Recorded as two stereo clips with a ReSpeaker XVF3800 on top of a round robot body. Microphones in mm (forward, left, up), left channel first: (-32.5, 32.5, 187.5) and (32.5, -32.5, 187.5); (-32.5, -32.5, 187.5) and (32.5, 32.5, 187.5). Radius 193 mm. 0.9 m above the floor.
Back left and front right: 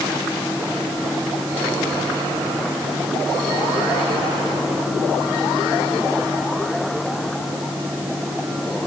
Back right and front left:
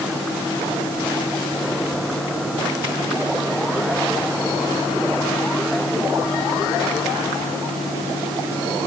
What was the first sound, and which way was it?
Only background noise.